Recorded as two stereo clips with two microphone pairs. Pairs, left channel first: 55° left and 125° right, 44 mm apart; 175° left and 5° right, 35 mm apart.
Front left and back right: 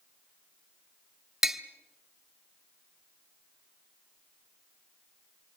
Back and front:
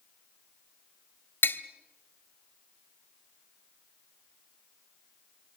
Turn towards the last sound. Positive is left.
turn(degrees=155)